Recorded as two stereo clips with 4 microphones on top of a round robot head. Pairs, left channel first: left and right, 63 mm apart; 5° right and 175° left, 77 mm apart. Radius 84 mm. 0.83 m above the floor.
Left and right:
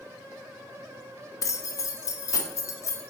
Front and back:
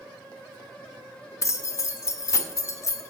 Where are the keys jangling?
50° left, 0.7 m.